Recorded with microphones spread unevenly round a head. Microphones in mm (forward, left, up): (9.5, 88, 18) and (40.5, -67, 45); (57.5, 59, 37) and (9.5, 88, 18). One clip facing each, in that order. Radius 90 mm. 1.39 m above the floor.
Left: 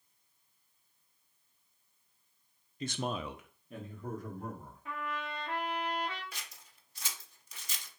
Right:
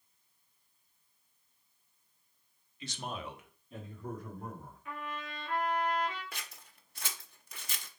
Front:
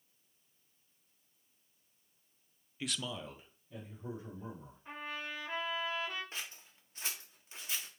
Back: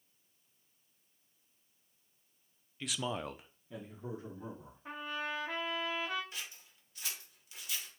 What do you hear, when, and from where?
2.8 s a man speaking: 45° left, 0.6 m; by 4.8 s 165° left, 2.5 m
4.8 s a trumpet: 170° left, 1.1 m
6.3 s scissors: 100° right, 0.6 m